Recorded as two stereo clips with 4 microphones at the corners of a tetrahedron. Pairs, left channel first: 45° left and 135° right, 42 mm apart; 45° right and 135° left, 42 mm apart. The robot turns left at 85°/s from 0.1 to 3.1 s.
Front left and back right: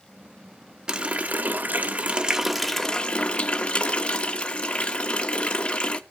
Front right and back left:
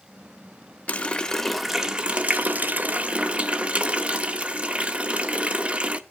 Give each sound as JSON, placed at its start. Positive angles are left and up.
{"t": 0.9, "sound": "a running tap", "azimuth_deg": -75, "distance_m": 0.5}